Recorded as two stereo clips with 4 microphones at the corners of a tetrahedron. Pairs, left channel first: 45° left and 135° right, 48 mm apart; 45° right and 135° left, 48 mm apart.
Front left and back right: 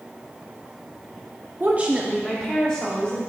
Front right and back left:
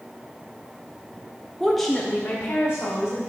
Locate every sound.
1.6 s a woman speaking: 155° right, 0.7 m; by 3.2 s 10° right, 1.9 m